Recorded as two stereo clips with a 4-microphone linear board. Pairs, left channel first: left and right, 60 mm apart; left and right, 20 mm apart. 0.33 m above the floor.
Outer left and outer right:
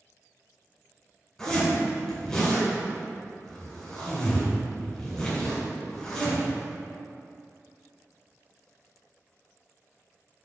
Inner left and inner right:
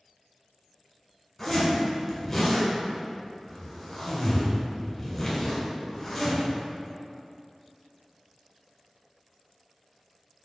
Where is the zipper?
10° left (ahead or behind), 1.7 m.